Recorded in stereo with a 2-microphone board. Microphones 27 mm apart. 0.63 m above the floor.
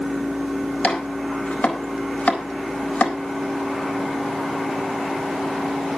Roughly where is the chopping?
Left.